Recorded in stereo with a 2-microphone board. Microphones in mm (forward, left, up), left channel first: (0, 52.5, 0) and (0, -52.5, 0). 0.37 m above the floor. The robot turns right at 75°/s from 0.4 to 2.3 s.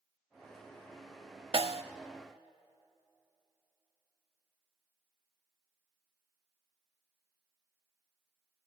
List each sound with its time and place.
1.5 s a snare drum: 60° right (ahead or behind), 0.7 m; by 1.8 s 70° right (ahead or behind), 0.7 m